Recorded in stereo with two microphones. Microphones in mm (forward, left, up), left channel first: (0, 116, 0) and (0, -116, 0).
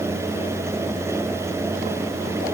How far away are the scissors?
No scissors in this recording.